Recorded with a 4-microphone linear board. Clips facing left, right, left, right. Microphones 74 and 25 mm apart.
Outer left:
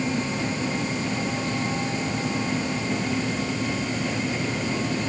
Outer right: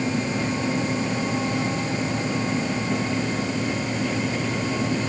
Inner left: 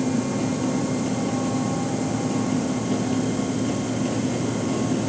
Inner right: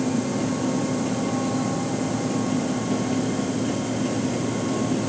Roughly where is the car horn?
No car horn in this recording.